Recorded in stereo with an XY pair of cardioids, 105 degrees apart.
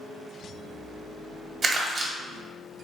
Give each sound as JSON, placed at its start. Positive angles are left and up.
{"t": 1.6, "sound": "crumpling", "azimuth_deg": -40, "distance_m": 1.3}